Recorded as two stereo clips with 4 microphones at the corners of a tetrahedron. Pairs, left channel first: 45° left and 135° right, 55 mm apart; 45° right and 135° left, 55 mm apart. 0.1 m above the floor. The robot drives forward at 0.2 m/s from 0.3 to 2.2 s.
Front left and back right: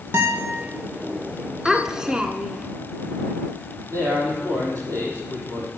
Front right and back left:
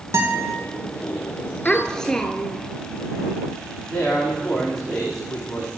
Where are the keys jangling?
No keys jangling in this recording.